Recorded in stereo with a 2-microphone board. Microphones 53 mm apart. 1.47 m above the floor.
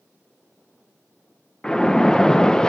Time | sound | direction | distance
1.6 | a splash | 15° left (ahead or behind) | 0.7 m